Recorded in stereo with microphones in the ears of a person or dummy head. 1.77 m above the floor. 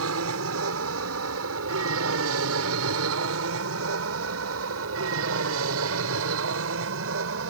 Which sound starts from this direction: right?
An aircraft, at 0.0 s.